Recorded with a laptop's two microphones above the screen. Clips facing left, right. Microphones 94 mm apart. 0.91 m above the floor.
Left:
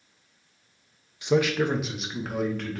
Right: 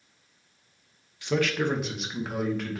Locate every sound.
1.2 s a man speaking: 20° left (ahead or behind), 0.5 m; by 2.8 s 5° right (ahead or behind), 1.4 m